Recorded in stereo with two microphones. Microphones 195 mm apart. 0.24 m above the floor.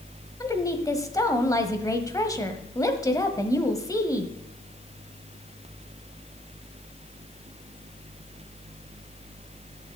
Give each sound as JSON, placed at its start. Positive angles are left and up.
{"t": 0.4, "sound": "a woman speaking", "side_deg": 15, "distance_m": 1.1}